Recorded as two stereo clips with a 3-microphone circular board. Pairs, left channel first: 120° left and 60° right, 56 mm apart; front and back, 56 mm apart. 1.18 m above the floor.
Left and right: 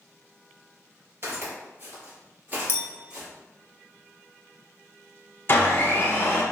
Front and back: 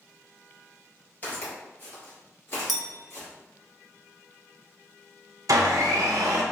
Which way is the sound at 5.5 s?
175° left.